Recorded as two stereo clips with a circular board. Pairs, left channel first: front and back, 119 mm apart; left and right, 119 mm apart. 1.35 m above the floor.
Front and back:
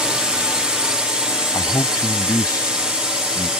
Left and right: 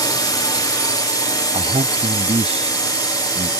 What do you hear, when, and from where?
0.0 s a drone: 100° left
1.5 s a man speaking: 60° right